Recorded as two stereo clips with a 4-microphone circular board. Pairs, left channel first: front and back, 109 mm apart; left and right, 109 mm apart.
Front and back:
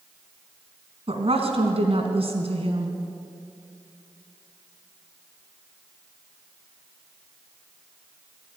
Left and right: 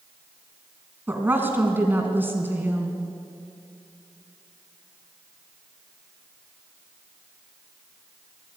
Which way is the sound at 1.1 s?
160° right.